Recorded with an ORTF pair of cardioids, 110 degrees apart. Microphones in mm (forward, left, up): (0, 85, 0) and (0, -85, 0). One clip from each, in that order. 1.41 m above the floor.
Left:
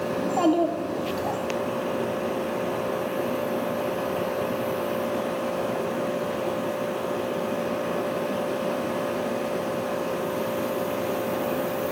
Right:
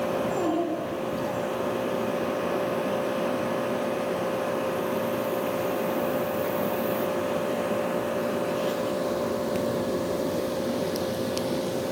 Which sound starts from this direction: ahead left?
A child speaking, at 0.2 s.